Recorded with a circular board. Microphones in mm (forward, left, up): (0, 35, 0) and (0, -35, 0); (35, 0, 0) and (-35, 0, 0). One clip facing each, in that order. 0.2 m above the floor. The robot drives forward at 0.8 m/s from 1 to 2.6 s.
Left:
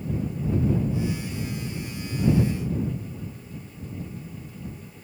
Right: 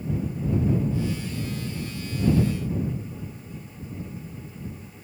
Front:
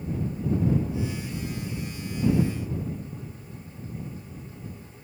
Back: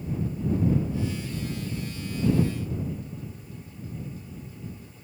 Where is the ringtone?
No ringtone in this recording.